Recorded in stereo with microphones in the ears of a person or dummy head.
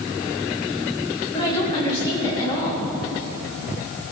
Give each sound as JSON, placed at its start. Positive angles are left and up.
{"t": 1.3, "sound": "a woman speaking", "side_deg": 20, "distance_m": 3.5}